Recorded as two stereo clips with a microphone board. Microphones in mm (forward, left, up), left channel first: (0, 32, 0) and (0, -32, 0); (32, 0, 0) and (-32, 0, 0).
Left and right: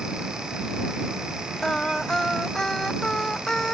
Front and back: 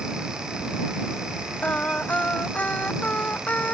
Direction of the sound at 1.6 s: 25° left.